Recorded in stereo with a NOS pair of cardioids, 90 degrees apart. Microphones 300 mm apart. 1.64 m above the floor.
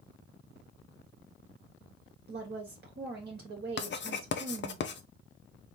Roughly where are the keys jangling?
No keys jangling in this recording.